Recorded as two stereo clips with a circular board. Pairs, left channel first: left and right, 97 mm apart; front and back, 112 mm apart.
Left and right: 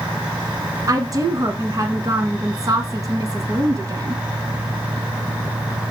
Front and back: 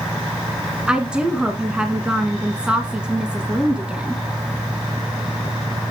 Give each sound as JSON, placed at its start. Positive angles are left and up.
{"t": 0.9, "sound": "a woman speaking", "azimuth_deg": -105, "distance_m": 1.5}